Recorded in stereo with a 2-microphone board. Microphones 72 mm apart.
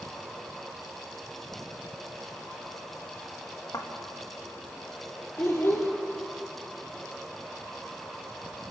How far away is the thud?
About 4 m.